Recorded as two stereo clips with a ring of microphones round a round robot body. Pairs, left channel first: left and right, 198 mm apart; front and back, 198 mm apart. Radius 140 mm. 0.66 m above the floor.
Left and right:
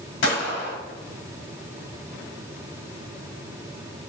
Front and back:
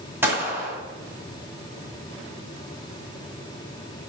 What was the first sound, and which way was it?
A gunshot, 100° left.